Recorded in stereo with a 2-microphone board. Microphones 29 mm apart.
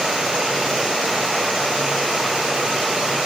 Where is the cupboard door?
No cupboard door in this recording.